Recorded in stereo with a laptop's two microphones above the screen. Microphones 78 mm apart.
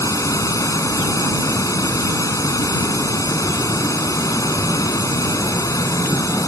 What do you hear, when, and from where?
0.0 s running water: 45° left (ahead or behind)